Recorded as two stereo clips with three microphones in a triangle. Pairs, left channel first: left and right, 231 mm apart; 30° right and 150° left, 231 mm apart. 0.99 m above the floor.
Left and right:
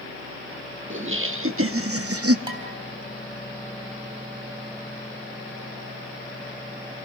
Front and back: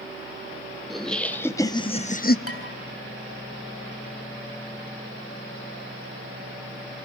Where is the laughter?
120° right, 1.7 m; by 2.4 s 80° right, 0.9 m.